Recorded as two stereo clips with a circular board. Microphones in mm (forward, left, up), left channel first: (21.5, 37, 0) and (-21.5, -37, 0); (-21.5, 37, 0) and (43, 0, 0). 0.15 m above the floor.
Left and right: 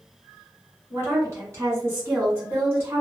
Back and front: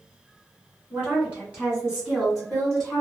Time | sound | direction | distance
0.9 | a woman speaking | 80° right | 2.0 m